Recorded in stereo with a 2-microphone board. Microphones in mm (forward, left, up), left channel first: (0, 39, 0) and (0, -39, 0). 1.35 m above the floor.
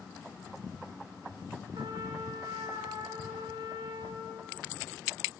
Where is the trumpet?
75° right (ahead or behind), 1.9 m.